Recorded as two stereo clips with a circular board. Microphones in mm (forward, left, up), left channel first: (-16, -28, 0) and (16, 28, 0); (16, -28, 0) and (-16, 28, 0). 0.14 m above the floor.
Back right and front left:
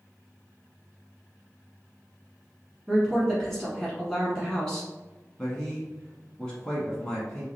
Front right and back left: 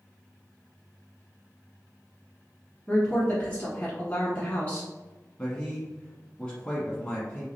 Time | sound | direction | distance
2.9 | a woman speaking | 45° right | 1.1 m
5.4 | a man speaking | 70° right | 1.1 m